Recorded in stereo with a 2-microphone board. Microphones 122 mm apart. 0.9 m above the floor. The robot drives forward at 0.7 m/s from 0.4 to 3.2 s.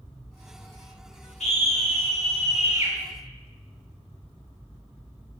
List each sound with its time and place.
1.4 s a scream: 65° left (ahead or behind), 2.5 m